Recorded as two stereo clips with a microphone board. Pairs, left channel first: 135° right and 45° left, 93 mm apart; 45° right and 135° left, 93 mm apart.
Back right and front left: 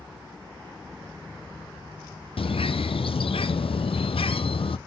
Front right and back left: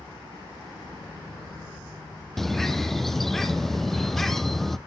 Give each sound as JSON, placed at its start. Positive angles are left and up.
{"t": 2.4, "sound": "a bird", "azimuth_deg": -130, "distance_m": 0.6}